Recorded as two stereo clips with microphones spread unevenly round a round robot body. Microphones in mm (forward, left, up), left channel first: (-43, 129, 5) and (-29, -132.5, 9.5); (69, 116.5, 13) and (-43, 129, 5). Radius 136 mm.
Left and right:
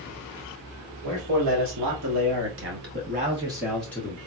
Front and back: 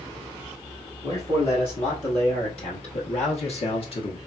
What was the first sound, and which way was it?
A man speaking, 65° right.